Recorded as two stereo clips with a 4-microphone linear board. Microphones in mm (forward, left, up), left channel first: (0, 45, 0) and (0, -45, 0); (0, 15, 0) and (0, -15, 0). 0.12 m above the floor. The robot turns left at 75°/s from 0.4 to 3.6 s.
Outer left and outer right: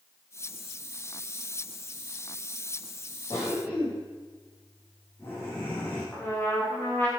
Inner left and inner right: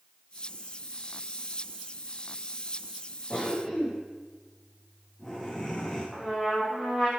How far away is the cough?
About 8 m.